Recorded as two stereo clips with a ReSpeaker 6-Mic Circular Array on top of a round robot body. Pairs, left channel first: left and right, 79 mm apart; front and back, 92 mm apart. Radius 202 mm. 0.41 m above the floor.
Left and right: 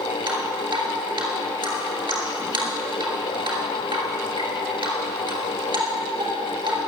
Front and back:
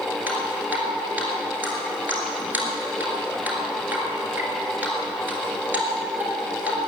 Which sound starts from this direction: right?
Dripping, at 0.3 s.